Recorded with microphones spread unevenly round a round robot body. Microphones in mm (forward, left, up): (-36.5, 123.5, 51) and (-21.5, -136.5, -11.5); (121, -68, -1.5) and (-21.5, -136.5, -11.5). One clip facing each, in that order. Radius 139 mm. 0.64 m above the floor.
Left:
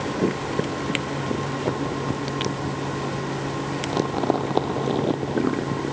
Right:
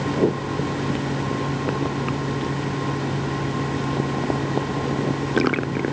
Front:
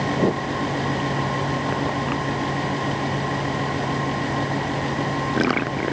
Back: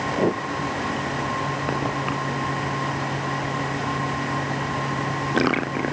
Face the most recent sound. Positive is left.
No sound to turn to.